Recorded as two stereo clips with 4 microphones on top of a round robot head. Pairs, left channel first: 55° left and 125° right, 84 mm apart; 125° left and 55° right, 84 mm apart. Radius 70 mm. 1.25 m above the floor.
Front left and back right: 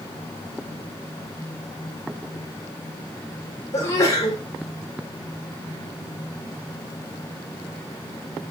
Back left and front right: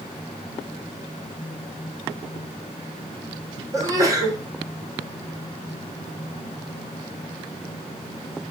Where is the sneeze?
Straight ahead, 4.5 m.